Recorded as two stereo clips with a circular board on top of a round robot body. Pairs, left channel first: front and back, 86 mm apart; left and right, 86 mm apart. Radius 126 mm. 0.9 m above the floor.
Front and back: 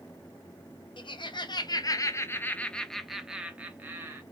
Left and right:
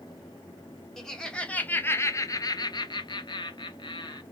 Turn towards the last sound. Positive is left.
turn(degrees=115)